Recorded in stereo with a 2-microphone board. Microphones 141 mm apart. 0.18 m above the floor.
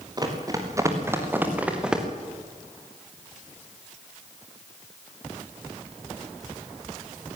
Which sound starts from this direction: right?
Running footsteps, at 0.2 s.